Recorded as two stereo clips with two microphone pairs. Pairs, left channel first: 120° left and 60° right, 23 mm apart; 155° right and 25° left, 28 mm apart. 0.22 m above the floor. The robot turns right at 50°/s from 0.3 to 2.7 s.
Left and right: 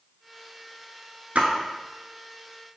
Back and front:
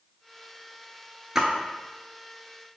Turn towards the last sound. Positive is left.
turn(degrees=20)